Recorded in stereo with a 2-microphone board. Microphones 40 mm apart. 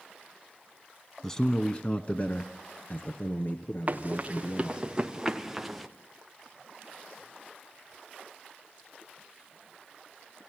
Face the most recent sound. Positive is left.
turn(degrees=0)  # may be behind; listen again after turning